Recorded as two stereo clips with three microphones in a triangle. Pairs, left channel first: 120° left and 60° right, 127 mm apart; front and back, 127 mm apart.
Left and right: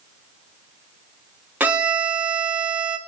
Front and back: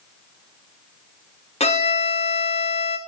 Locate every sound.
1.6 s a violin: 15° left, 0.5 m